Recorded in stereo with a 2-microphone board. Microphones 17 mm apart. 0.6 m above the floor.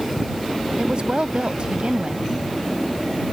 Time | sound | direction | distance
0.8 | a woman speaking | 65° right (ahead or behind) | ?